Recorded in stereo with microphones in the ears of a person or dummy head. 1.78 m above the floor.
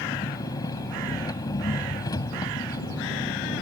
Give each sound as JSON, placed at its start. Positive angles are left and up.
{"t": 0.0, "sound": "an engine running", "side_deg": 20}